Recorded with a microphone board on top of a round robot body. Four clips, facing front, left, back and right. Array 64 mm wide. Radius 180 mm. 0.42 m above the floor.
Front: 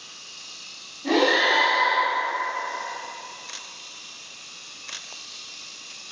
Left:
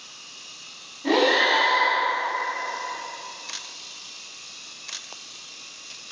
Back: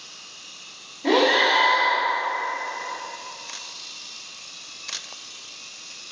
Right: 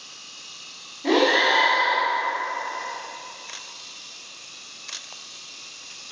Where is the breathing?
160° right, 1.3 m.